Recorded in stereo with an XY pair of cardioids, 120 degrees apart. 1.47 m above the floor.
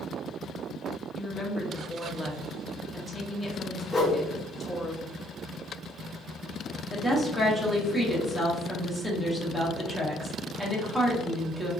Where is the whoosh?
20° left, 0.9 m.